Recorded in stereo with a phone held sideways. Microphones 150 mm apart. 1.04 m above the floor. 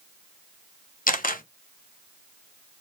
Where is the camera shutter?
65° left (ahead or behind), 0.7 m.